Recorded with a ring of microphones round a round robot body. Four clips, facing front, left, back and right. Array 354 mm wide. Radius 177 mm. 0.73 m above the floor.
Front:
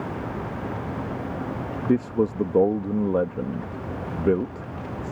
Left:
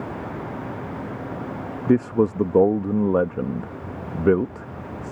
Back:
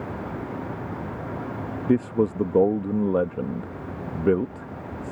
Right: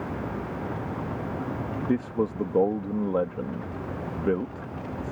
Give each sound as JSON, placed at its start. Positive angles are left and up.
{"t": 1.9, "sound": "a man speaking", "azimuth_deg": 95}